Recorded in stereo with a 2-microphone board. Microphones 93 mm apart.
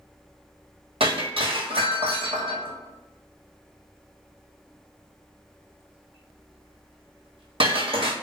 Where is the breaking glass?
80° right, 1.2 m.